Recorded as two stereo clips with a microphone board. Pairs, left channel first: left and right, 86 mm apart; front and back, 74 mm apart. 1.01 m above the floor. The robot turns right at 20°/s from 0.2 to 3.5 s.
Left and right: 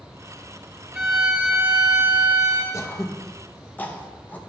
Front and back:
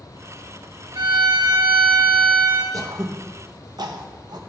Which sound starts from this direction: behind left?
Throat clearing, at 2.7 s.